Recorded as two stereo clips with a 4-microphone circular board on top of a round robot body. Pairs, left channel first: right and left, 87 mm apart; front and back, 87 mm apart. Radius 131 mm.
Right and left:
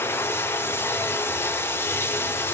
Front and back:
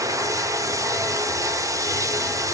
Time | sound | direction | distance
0.0 | running water | 145° right | 1.0 m